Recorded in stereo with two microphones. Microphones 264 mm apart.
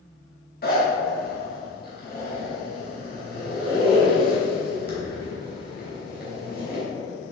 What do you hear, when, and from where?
0.6 s a zipper: 35° left (ahead or behind), 3.5 m